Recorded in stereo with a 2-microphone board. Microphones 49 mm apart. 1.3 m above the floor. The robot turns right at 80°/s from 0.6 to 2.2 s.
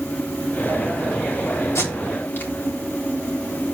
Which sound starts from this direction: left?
Tape being pulled, at 1.8 s.